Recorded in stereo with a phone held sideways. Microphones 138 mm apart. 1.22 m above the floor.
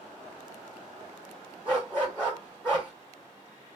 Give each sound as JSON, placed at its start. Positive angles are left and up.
{"t": 1.6, "sound": "a dog barking", "side_deg": 15, "distance_m": 3.0}